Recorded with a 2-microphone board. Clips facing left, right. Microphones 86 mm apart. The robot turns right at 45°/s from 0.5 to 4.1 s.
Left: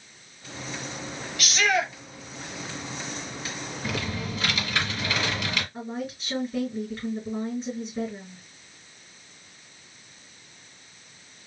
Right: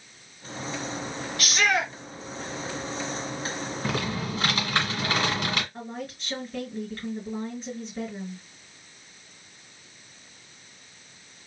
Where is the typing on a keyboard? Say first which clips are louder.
Right 1 dB; 40° right (ahead or behind), 1.5 m.